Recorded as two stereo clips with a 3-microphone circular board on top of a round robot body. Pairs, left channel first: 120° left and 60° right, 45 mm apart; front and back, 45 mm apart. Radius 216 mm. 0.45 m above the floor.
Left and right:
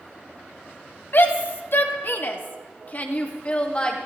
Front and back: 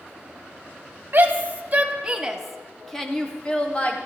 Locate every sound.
1.1 s a shout: 145° left, 2.5 m; by 4.0 s 55° left, 3 m